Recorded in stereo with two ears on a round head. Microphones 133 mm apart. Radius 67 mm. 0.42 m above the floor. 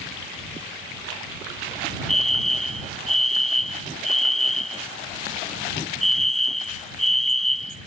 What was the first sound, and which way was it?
A fire alarm, centre (ahead or behind).